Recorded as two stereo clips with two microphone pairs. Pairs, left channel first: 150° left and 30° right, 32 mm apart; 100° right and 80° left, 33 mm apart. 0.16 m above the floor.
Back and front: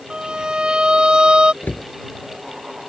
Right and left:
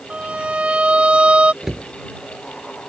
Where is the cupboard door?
155° left.